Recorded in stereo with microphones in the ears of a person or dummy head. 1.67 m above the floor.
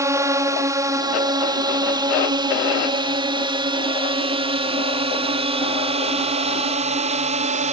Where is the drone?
15° right (ahead or behind); by 7.7 s 35° right (ahead or behind).